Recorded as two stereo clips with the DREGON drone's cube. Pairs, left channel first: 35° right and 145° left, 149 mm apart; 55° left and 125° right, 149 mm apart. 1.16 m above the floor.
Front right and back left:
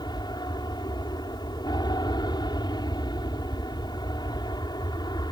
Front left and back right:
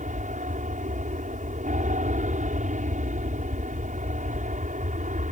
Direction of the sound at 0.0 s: 95° right.